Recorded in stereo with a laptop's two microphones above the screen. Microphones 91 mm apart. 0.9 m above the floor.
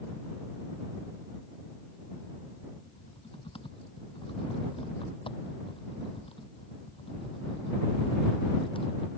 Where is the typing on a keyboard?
80° left.